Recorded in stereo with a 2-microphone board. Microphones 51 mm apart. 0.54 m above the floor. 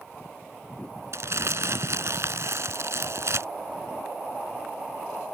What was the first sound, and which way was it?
Crumpling, 65° right (ahead or behind).